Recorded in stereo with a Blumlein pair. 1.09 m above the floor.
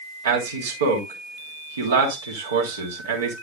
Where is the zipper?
No zipper in this recording.